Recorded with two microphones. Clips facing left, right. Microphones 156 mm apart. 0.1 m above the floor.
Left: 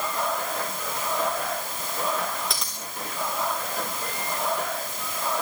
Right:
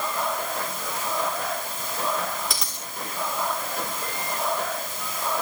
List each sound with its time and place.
2.5 s a dropped coin: centre (ahead or behind), 5.5 m